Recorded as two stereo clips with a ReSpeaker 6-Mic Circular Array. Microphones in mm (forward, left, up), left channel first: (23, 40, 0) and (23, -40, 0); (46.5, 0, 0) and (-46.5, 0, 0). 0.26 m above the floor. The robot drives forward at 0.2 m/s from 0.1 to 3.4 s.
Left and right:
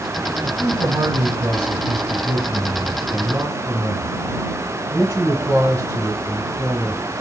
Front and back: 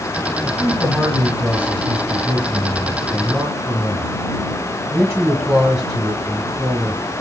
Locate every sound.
0.4 s a man speaking: 95° right, 1.1 m; by 7.0 s 135° right, 1.3 m